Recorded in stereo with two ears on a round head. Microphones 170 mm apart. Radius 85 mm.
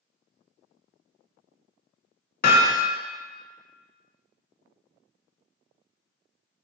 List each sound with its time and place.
2.4 s hammering: 50° left (ahead or behind), 1.0 m